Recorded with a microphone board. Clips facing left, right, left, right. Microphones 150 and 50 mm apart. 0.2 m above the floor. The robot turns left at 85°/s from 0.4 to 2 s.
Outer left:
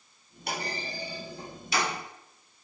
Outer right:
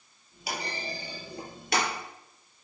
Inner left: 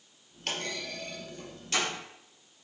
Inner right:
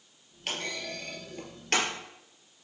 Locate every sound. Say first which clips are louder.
0.5 s a clunk: outer left 1 dB, even; 5° right (ahead or behind), 3.5 m; by 1.9 s 50° right (ahead or behind), 3.5 m